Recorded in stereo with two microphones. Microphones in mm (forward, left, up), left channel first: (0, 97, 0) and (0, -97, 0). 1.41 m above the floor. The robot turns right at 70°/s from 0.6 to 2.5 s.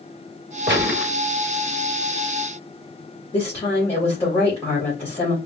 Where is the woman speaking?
30° left (ahead or behind), 3 m.